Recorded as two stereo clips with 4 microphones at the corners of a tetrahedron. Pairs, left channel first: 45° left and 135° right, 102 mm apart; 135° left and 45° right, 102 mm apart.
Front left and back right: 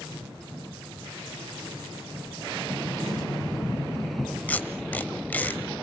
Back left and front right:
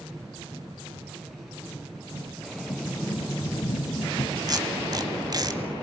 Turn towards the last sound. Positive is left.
turn(degrees=-20)